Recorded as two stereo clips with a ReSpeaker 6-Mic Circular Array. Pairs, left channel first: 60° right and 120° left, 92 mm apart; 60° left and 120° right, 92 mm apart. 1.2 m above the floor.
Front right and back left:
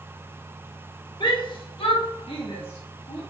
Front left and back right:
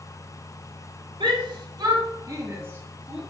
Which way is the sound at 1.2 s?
95° right.